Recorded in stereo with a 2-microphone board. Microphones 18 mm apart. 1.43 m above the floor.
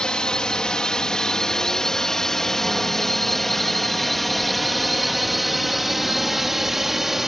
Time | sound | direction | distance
0.0 | a drone | 50° left (ahead or behind) | ?